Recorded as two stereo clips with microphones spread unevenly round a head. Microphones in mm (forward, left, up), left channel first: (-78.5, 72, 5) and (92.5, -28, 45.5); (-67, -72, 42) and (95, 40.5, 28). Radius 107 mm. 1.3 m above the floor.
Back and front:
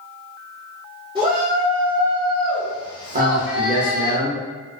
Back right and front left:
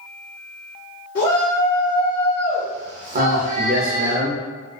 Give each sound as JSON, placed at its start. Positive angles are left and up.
{"t": 1.1, "sound": "a shout", "azimuth_deg": -100, "distance_m": 1.1}
{"t": 3.1, "sound": "a man speaking", "azimuth_deg": 20, "distance_m": 0.8}